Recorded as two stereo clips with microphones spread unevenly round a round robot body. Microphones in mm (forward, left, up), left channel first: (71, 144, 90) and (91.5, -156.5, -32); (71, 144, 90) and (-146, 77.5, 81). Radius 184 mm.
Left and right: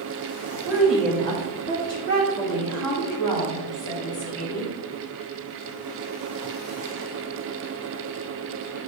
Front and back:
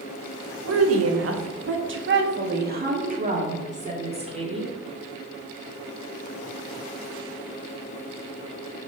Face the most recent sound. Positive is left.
turn(degrees=130)